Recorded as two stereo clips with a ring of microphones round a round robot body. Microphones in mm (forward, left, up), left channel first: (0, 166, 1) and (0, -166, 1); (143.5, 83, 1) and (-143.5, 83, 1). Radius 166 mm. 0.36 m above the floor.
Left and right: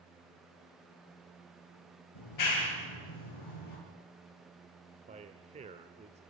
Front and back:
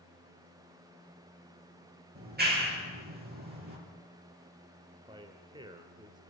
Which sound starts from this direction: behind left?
A clap, at 2.1 s.